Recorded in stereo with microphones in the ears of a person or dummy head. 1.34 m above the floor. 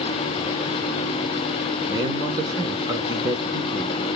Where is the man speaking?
20° right (ahead or behind), 1.1 m.